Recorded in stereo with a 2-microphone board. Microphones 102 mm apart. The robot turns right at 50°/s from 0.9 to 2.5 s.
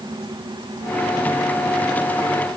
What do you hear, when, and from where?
Only background noise.